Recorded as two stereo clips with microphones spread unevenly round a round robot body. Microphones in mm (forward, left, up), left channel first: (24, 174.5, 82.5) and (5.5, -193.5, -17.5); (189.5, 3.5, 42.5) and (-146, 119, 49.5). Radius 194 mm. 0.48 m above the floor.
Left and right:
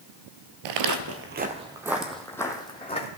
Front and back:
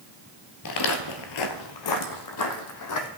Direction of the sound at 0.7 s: 60° right.